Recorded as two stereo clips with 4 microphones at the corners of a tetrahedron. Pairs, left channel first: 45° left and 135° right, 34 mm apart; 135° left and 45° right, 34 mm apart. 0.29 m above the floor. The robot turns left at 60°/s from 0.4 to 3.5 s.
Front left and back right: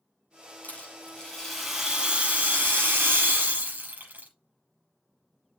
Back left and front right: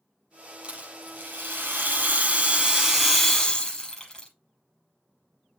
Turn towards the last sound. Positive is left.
turn(degrees=-155)